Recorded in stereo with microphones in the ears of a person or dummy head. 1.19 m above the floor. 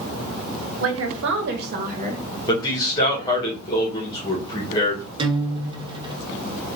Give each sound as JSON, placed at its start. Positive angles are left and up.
{"t": 0.8, "sound": "a woman speaking", "side_deg": -70, "distance_m": 1.4}
{"t": 2.5, "sound": "a man speaking", "side_deg": 30, "distance_m": 1.6}
{"t": 5.2, "sound": "a guitar", "side_deg": -20, "distance_m": 0.9}